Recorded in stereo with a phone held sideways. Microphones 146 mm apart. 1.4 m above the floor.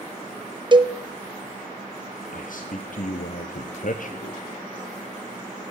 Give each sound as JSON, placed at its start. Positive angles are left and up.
{"t": 0.7, "sound": "a cowbell", "side_deg": -35, "distance_m": 0.7}
{"t": 2.3, "sound": "a man speaking", "side_deg": 65, "distance_m": 0.8}